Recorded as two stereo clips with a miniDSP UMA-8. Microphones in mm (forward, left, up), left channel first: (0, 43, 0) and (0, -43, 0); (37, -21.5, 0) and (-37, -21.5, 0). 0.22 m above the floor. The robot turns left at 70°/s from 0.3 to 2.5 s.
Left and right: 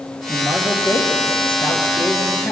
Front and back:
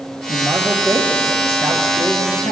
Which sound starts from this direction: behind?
A man speaking, at 0.3 s.